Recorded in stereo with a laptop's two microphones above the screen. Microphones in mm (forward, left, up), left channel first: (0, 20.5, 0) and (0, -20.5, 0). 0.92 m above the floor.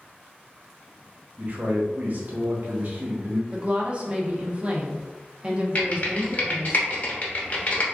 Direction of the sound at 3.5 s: 30° right (ahead or behind).